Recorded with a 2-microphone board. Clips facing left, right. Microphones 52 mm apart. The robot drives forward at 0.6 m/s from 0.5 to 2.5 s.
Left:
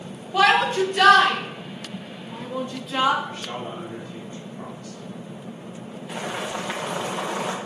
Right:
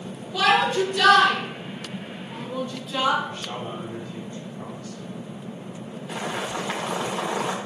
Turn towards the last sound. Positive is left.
turn(degrees=5)  # may be behind; listen again after turning